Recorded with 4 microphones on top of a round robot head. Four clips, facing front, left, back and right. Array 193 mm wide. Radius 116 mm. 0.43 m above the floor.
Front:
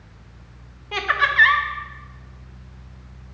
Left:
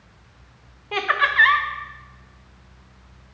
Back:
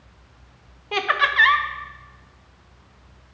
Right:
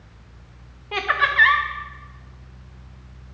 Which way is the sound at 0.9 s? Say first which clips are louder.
Even, even; 165° left.